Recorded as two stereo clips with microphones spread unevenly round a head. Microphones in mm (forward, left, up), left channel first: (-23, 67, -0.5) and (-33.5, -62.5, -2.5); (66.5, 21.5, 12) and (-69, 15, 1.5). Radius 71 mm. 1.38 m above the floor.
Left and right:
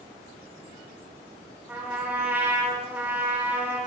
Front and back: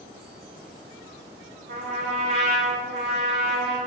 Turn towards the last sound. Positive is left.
turn(degrees=-170)